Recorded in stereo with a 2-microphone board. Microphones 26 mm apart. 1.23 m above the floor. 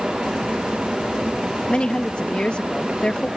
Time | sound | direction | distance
1.7 | a woman speaking | 40° left (ahead or behind) | ?